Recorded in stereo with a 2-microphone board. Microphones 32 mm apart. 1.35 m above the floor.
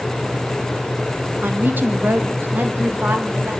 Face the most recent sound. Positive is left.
turn(degrees=-85)